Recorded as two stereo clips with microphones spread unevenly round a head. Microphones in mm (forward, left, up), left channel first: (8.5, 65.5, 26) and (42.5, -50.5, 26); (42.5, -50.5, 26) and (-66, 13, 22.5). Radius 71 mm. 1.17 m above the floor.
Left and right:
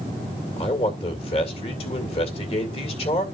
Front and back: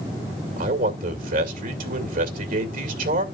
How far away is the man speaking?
About 2 m.